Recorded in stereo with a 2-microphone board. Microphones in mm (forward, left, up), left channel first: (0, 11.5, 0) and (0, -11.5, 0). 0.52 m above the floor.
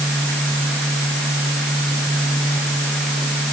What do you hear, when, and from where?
Only background noise.